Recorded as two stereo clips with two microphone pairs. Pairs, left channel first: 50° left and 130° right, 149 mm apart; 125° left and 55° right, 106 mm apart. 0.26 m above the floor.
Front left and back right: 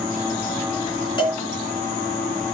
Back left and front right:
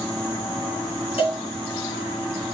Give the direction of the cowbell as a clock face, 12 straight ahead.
8 o'clock.